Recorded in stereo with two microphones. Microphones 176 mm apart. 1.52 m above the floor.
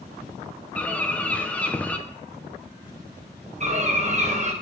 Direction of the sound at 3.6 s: 40° right (ahead or behind).